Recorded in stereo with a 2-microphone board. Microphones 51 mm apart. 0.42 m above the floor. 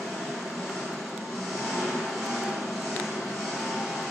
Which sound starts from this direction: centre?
An engine running, at 0.0 s.